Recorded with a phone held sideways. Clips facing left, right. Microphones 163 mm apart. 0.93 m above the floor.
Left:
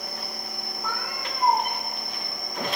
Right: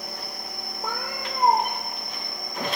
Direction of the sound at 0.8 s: 45° right (ahead or behind).